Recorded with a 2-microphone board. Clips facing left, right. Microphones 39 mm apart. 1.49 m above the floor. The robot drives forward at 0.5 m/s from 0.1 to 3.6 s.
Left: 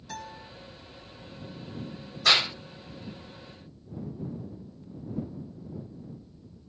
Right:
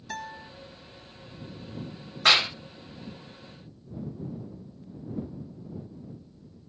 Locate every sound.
0.1 s a guitar: 30° right (ahead or behind), 0.6 m
2.2 s a clap: 55° right (ahead or behind), 1.8 m; by 2.5 s 50° right (ahead or behind), 1.9 m